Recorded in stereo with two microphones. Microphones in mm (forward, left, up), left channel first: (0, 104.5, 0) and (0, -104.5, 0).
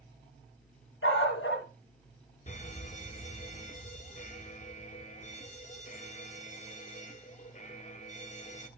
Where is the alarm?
35° left (ahead or behind), 0.8 m.